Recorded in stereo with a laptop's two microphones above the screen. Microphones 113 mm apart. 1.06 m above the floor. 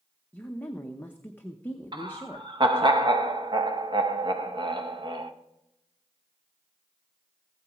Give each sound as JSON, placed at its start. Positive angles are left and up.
{"t": 0.3, "sound": "a woman speaking", "side_deg": 15, "distance_m": 0.7}
{"t": 1.9, "sound": "laughter", "side_deg": -45, "distance_m": 1.1}